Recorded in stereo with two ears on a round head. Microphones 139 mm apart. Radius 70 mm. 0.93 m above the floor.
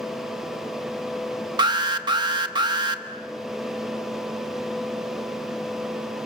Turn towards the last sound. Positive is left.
turn(degrees=-30)  # may be behind; listen again after turning